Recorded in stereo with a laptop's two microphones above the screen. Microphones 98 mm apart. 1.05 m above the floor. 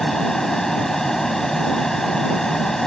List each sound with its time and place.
0.0 s a fan: 5° left (ahead or behind)